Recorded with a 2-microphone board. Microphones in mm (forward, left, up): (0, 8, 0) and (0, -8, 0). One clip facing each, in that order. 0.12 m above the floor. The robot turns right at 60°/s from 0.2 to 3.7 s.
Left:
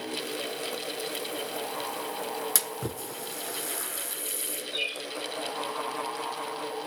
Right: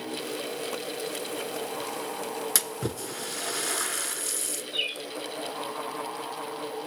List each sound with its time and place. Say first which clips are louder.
2.5 s a splash: right 2 dB; 15° right (ahead or behind), 0.7 m; by 4.6 s 35° right (ahead or behind), 0.7 m
4.7 s a bird: right 1 dB; 15° left (ahead or behind), 2.5 m